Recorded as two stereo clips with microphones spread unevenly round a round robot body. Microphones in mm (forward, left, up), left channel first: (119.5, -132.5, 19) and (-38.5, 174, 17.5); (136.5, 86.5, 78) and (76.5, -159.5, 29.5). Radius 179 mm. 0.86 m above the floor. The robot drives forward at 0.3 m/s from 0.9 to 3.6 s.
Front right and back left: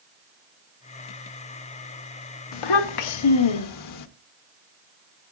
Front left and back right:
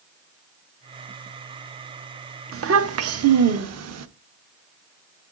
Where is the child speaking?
75° right, 0.8 m; by 4.1 s 100° right, 0.8 m.